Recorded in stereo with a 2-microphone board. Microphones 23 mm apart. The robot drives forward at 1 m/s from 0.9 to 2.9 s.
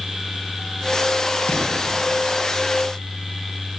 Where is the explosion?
80° left, 8 m; by 1.8 s 75° left (ahead or behind), 8 m.